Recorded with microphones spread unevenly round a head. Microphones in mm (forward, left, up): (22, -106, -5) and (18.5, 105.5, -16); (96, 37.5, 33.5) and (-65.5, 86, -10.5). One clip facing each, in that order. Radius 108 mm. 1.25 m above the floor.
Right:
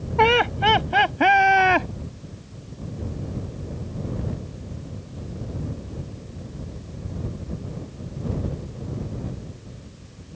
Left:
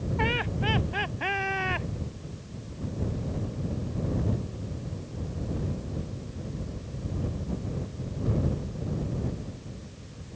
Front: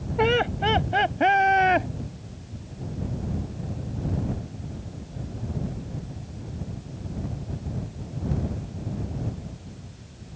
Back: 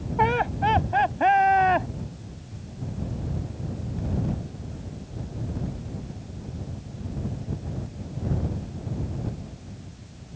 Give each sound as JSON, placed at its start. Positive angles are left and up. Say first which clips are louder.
{"t": 0.2, "sound": "laughter", "louder": "right 13 dB, front 2 dB", "azimuth_deg": -80}